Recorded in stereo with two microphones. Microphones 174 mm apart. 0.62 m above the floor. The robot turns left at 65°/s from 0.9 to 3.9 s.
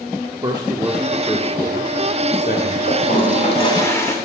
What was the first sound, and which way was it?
A man speaking, 25° right (ahead or behind).